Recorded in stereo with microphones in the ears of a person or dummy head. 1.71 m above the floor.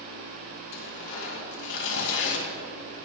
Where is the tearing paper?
65° left (ahead or behind), 4 m.